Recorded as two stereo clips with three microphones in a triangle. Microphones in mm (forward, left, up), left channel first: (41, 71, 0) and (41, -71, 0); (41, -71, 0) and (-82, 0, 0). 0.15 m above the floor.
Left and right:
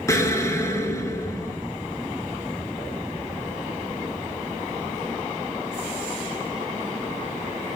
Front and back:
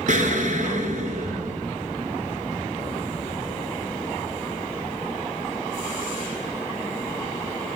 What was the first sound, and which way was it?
An explosion, 155° left.